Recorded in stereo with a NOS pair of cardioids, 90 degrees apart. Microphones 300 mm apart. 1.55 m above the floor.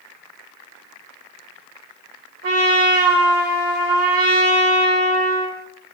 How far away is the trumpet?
About 2.5 m.